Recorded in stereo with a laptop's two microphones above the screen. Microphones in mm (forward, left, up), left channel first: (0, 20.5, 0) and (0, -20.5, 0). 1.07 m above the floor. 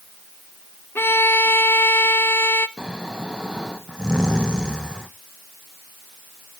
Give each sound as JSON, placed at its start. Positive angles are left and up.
{"t": 0.9, "sound": "a violin", "side_deg": 65, "distance_m": 0.5}
{"t": 2.8, "sound": "snoring", "side_deg": -20, "distance_m": 1.1}